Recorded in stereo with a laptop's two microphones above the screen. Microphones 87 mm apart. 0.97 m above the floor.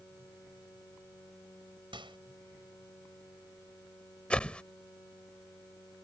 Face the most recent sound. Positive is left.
turn(degrees=10)  # may be behind; listen again after turning